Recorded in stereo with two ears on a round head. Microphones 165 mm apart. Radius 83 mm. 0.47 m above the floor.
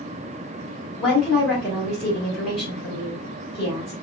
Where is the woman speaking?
Centre (ahead or behind), 2 m.